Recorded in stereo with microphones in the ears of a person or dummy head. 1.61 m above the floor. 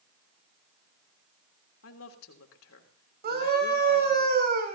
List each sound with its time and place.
1.8 s a woman speaking: 80° left, 3 m
3.2 s a scream: 45° right (ahead or behind), 6 m